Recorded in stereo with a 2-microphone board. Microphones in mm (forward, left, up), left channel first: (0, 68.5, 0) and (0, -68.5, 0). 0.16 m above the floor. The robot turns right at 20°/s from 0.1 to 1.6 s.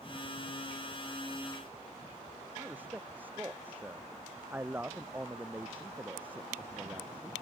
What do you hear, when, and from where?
2.6 s a man speaking: 15° right (ahead or behind)